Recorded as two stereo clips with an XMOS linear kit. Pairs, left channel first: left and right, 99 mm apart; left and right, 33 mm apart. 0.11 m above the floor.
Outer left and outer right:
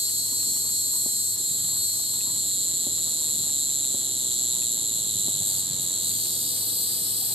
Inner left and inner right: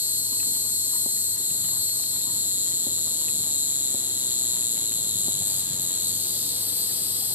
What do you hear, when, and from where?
0.0 s an insect: 70° right (ahead or behind), 0.8 m